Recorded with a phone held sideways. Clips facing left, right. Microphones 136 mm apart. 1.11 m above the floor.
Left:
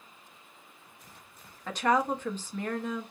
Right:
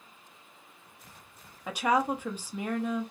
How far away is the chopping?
No chopping in this recording.